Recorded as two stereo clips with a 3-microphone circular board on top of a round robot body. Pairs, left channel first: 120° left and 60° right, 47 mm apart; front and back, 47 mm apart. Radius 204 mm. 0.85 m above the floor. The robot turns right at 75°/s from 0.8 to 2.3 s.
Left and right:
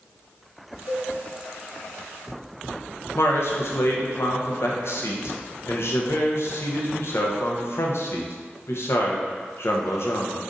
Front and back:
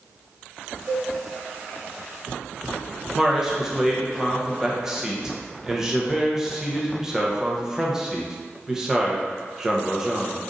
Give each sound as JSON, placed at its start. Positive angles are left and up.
{"t": 0.9, "sound": "a cowbell", "azimuth_deg": 95, "distance_m": 1.4}
{"t": 3.1, "sound": "a man speaking", "azimuth_deg": 105, "distance_m": 1.0}